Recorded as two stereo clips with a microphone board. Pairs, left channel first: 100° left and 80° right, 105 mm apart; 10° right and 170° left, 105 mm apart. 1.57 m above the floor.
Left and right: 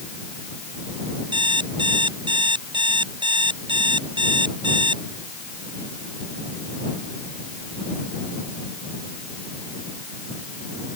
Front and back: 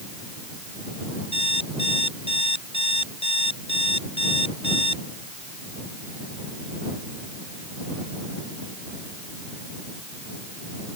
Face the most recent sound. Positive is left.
turn(degrees=-40)